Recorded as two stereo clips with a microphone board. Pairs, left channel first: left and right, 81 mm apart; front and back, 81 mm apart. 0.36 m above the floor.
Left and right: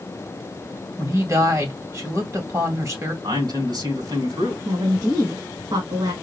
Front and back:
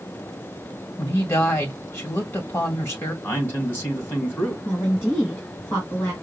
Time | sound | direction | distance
1.0 | a woman speaking | 55° right | 1.7 m
3.2 | a man speaking | 65° right | 2.5 m
4.7 | a woman speaking | 75° right | 3 m